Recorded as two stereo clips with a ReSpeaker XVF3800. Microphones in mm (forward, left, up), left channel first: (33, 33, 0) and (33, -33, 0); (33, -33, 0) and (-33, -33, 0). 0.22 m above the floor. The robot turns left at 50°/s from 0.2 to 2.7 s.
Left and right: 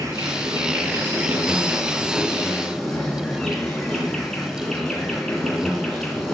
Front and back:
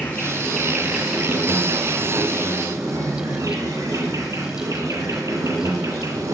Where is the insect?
60° right, 3 m; by 6.3 s 175° left, 3 m.